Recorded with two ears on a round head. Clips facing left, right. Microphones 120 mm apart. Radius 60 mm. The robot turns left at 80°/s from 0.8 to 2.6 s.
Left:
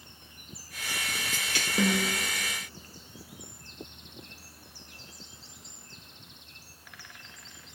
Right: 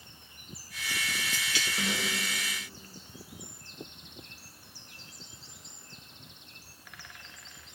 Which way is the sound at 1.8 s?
110° left.